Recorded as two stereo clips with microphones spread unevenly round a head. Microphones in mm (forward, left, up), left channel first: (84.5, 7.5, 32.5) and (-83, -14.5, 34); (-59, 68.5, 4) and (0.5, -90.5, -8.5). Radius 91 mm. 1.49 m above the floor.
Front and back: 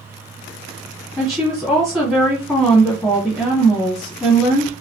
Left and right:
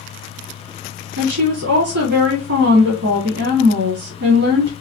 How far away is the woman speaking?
About 1.2 m.